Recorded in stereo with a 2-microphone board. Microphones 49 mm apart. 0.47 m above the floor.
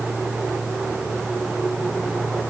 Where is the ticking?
No ticking in this recording.